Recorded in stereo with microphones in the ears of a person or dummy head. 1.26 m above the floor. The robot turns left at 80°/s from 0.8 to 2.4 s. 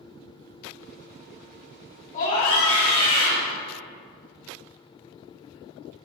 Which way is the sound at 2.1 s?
40° left (ahead or behind).